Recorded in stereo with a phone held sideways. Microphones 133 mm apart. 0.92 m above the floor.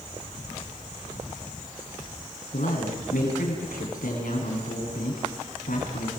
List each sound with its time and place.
2.5 s a man speaking: 75° left (ahead or behind), 9.5 m